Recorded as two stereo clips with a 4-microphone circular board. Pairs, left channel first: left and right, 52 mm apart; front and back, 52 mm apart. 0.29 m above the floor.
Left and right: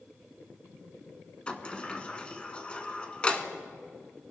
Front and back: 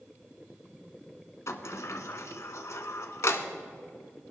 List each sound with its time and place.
1.5 s a sliding door: 20° left, 0.9 m